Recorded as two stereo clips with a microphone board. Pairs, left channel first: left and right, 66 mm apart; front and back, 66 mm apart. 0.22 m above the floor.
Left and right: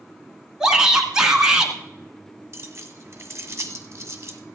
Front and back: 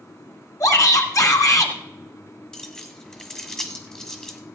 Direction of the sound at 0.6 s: 15° right.